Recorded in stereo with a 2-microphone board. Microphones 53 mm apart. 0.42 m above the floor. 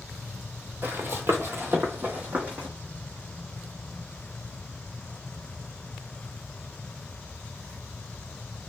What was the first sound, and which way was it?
Running footsteps, 40° right (ahead or behind).